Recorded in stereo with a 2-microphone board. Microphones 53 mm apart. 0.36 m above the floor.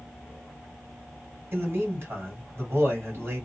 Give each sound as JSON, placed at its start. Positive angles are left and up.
{"t": 1.5, "sound": "a man speaking", "side_deg": -55, "distance_m": 1.8}